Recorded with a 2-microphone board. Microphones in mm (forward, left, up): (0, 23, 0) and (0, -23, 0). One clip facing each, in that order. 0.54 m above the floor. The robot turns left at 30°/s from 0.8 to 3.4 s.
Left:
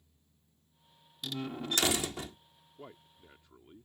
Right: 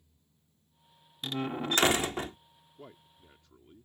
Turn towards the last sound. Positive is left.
turn(degrees=20)  # may be behind; listen again after turning